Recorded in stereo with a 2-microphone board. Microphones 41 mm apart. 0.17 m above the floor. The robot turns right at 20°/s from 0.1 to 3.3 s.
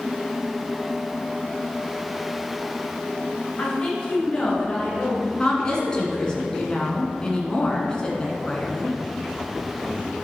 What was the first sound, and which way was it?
A woman speaking, 30° left (ahead or behind).